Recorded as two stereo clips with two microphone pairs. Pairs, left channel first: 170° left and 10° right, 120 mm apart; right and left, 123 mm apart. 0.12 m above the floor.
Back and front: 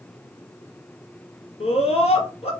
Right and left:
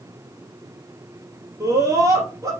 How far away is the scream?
About 2.5 m.